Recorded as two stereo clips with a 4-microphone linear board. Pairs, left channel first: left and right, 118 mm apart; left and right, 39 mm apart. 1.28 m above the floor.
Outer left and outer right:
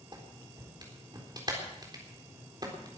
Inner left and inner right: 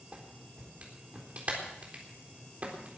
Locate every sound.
0.1 s a clap: 40° right (ahead or behind), 4 m